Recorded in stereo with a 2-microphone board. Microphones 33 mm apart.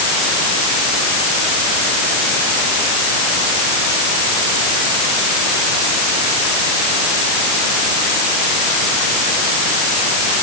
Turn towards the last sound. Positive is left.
No sound to turn to.